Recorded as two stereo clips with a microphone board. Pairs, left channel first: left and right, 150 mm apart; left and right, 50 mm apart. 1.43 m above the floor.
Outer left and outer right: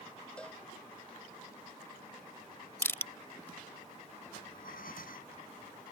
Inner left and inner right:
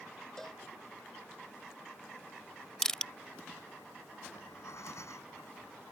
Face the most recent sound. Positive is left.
turn(degrees=70)  # may be behind; listen again after turning